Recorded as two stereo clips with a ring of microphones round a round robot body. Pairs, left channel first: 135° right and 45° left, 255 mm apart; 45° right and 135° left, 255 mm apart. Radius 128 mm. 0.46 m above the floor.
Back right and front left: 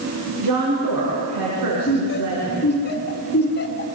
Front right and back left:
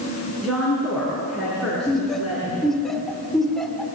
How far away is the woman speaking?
About 5.5 m.